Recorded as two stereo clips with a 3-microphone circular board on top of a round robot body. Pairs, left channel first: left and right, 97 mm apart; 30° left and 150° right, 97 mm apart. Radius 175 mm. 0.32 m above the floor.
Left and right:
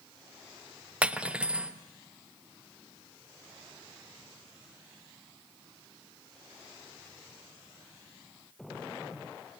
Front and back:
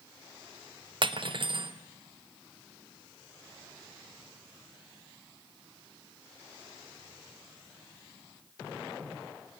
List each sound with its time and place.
1.0 s cutlery clinking: 165° right, 1.2 m